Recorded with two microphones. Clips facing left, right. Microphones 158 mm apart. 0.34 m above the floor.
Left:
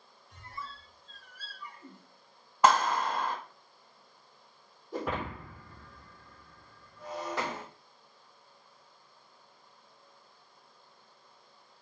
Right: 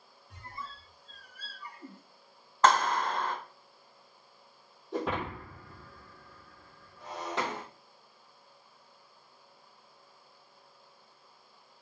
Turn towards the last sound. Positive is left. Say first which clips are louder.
# right 2 dB
turn(degrees=-20)  # may be behind; listen again after turning